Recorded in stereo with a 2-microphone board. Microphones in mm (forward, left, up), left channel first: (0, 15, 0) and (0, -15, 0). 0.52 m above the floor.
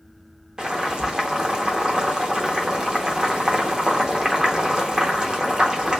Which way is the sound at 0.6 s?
25° right (ahead or behind).